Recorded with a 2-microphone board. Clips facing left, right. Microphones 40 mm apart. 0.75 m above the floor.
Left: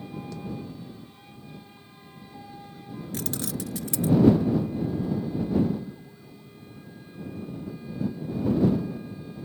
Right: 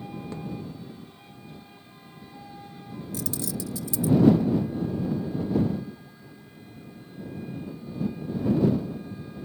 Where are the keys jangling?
55° left (ahead or behind).